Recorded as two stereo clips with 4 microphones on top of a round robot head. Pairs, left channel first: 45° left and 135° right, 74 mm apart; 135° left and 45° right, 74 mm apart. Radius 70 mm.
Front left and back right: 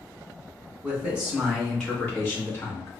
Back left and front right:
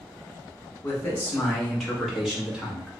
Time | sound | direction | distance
0.8 | a man speaking | 175° left | 1.2 m